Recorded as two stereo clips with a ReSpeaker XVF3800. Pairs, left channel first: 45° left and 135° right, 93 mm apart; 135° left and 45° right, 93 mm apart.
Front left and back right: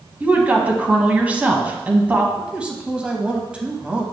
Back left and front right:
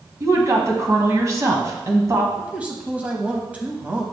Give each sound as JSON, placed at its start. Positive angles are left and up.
{"t": 0.2, "sound": "a woman speaking", "azimuth_deg": -70, "distance_m": 1.3}
{"t": 2.4, "sound": "a man speaking", "azimuth_deg": -80, "distance_m": 0.9}